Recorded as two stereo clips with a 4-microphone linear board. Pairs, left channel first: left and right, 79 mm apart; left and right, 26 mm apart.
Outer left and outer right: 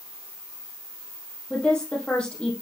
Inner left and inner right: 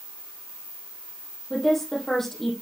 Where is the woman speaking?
15° left (ahead or behind), 3.5 m.